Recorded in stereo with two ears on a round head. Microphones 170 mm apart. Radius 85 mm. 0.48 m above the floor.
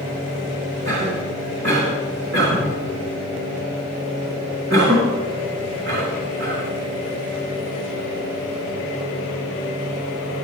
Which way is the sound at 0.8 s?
65° right (ahead or behind).